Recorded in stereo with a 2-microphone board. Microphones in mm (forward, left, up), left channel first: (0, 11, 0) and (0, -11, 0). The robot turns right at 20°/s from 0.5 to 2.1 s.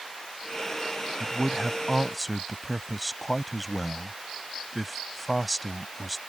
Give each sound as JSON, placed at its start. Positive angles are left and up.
{"t": 1.2, "sound": "a man speaking", "side_deg": -5}